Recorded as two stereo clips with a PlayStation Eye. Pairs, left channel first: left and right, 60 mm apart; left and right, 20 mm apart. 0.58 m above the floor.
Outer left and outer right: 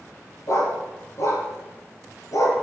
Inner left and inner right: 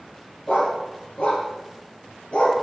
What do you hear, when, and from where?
0.5 s a dog barking: 60° left (ahead or behind), 5 m; by 2.5 s 65° left (ahead or behind), 3.5 m